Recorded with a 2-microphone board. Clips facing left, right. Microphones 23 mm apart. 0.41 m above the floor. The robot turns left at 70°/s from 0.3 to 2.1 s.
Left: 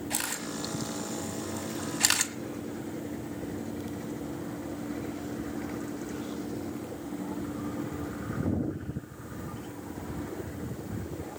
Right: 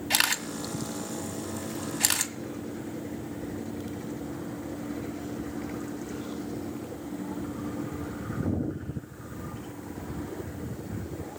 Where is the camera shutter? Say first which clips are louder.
Right 10 dB; 60° right (ahead or behind), 1.7 m; by 2.3 s 10° left (ahead or behind), 1.7 m.